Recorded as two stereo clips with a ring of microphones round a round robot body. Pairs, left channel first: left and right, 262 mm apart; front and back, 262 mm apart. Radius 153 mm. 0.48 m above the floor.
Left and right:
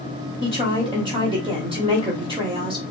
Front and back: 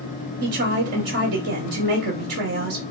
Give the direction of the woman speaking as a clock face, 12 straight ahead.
5 o'clock.